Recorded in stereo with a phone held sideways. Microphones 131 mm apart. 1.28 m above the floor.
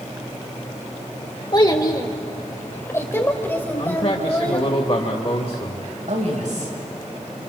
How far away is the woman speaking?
About 7.5 m.